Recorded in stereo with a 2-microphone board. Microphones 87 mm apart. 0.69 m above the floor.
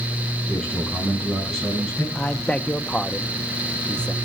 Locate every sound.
0.5 s a man speaking: 5° left (ahead or behind), 5.5 m
2.1 s a man speaking: 10° left (ahead or behind), 0.7 m